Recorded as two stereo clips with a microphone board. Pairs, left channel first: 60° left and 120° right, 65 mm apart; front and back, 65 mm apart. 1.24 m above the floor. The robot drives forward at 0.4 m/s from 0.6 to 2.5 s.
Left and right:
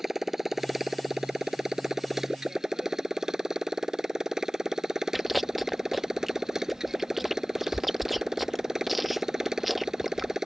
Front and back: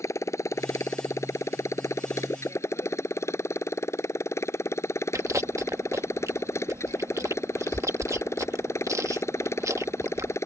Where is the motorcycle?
35° right; by 10.5 s 40° right.